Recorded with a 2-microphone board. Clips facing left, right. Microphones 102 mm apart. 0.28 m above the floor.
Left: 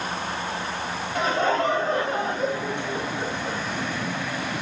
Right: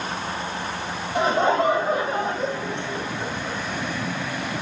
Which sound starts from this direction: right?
Laughter, at 1.1 s.